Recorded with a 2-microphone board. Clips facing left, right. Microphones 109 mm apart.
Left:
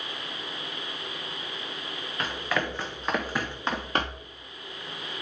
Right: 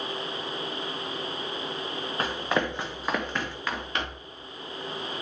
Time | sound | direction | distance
2.2 | running footsteps | 30° right (ahead or behind) | 1.4 m